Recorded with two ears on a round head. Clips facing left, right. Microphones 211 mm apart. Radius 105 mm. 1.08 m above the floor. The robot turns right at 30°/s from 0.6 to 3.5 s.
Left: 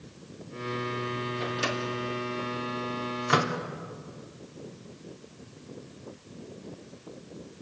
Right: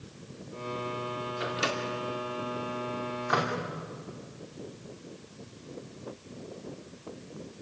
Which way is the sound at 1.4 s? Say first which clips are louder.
Right 1 dB; 15° right (ahead or behind).